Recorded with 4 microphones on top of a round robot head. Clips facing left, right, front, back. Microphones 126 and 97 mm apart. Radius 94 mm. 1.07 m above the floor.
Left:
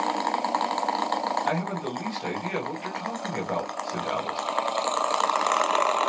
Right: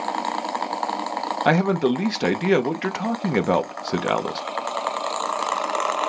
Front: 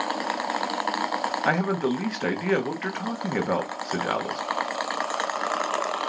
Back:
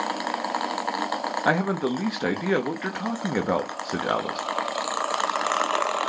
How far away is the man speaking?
About 1.3 m.